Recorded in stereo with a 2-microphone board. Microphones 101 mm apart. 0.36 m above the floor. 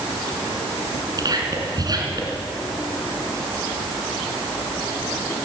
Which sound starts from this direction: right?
Whispering, at 1.2 s.